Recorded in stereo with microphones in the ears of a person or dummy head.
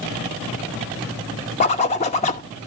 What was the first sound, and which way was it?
A zipper, 35° left (ahead or behind).